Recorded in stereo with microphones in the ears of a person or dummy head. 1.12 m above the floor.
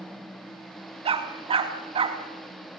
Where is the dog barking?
30° right (ahead or behind), 3 m.